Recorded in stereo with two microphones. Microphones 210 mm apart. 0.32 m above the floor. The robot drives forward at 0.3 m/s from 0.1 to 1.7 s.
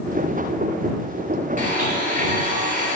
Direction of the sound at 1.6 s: 40° right (ahead or behind).